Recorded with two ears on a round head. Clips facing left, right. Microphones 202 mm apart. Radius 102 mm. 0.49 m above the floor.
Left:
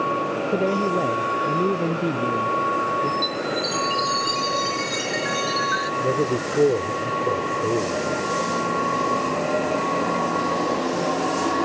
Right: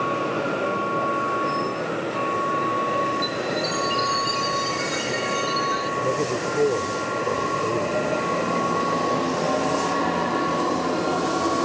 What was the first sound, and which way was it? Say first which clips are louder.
A man speaking: left 4 dB; 60° left (ahead or behind).